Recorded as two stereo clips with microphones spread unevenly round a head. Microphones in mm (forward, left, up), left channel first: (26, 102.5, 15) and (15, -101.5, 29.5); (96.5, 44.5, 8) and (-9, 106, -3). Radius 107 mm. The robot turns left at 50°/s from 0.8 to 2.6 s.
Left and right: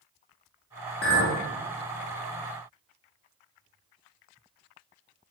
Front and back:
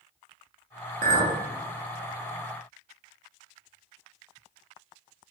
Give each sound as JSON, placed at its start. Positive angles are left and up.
{"t": 1.0, "sound": "a clink", "azimuth_deg": 130, "distance_m": 0.6}